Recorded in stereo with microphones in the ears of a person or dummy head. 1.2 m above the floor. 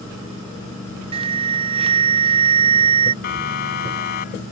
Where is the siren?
50° left (ahead or behind); by 4.4 s 45° left (ahead or behind).